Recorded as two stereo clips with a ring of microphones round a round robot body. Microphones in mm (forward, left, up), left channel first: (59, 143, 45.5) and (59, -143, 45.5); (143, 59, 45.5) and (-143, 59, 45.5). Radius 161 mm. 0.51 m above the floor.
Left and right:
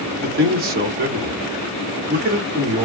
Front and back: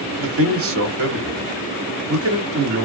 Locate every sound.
0.2 s a man speaking: 145° right, 1.2 m